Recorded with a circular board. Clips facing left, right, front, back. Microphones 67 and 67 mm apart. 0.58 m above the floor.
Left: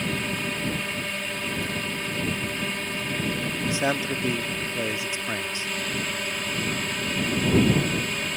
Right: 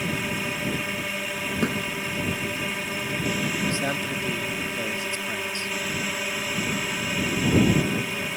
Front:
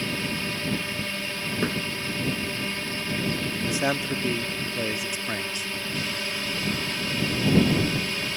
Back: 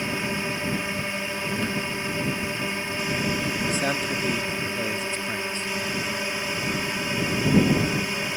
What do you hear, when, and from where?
0.0 s a drone: 160° right
1.6 s a thud: 65° right
3.6 s a man speaking: 55° left